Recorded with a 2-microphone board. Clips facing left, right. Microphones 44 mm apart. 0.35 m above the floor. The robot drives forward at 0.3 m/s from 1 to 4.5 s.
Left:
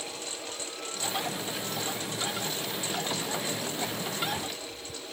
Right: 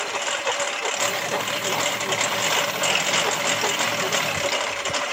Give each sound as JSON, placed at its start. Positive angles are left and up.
{"t": 0.0, "sound": "a lawn mower", "side_deg": -65}